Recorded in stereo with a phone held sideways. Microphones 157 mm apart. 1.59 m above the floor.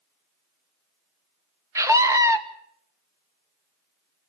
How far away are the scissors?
I don't hear scissors.